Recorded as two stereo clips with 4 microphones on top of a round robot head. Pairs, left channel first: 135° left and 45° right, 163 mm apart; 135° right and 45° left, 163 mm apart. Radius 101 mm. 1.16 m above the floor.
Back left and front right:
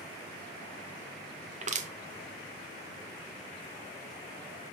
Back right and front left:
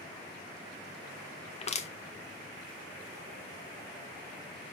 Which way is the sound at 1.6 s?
85° right.